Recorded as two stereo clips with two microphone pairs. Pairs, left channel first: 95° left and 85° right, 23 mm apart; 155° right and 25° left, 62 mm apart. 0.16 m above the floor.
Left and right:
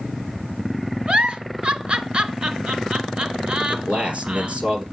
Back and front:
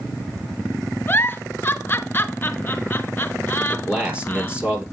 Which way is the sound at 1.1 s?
110° right.